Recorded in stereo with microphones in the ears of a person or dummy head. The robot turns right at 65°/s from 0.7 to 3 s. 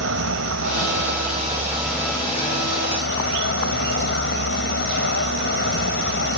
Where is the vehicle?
80° right; by 6.4 s 70° left.